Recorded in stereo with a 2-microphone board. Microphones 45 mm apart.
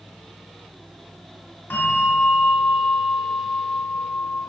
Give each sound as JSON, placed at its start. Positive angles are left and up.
{"t": 1.7, "sound": "a bell", "side_deg": 65, "distance_m": 2.5}